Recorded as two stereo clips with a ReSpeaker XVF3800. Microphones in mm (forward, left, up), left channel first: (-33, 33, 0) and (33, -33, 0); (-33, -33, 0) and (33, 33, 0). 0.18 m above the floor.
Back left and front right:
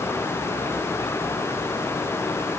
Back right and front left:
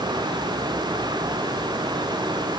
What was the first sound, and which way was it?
Only background noise.